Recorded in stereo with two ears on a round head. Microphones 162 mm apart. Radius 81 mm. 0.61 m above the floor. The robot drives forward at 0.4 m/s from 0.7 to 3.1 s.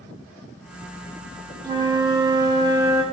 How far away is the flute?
About 0.5 m.